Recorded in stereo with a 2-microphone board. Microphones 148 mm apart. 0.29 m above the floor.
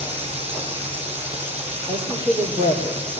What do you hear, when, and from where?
0.0 s running water: 45° right (ahead or behind), 9 m
1.9 s a woman speaking: 35° right (ahead or behind), 5 m